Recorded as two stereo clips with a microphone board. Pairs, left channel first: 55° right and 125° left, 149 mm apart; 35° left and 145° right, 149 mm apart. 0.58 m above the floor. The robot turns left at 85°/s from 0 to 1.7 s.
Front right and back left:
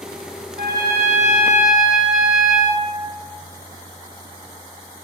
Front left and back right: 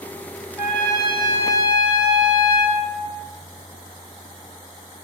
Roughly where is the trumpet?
Behind left.